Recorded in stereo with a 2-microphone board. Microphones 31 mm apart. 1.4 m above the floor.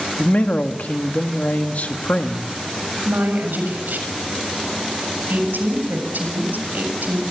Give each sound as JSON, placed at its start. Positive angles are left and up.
{"t": 0.2, "sound": "a man speaking", "side_deg": 60, "distance_m": 1.9}
{"t": 3.0, "sound": "a woman speaking", "side_deg": -85, "distance_m": 7.0}